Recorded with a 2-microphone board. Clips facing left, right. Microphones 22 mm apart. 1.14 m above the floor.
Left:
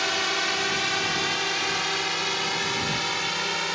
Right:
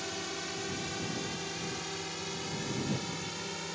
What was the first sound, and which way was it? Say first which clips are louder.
A drone: left 13 dB; 55° left (ahead or behind).